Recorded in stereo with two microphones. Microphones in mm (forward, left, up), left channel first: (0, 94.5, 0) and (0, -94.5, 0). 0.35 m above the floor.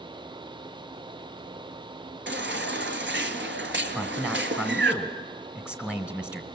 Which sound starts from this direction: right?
A baby crying, at 2.3 s.